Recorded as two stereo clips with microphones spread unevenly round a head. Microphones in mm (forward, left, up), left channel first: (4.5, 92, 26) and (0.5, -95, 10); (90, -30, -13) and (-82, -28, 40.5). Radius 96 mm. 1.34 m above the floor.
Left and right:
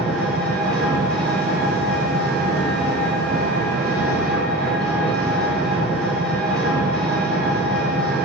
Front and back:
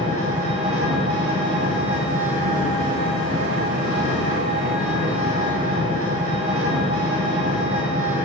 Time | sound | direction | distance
0.0 | an engine running | 175° left | 6 m